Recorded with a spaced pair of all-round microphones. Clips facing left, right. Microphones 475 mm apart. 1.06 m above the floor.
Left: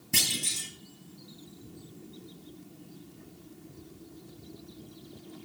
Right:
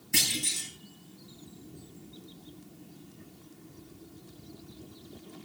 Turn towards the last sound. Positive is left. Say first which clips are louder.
# right 1 dB
turn(degrees=55)  # may be behind; listen again after turning